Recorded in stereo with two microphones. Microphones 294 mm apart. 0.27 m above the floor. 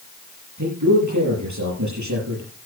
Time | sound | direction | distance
0.6 | a man speaking | 80° right | 6.5 m